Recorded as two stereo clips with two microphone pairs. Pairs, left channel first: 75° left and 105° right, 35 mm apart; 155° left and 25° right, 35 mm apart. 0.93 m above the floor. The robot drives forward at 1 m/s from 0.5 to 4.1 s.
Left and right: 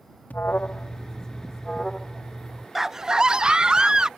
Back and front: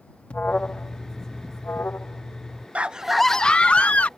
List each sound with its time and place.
0.3 s an alarm: 105° left; by 2.6 s 160° left
2.8 s a scream: 35° right; by 4.1 s 170° right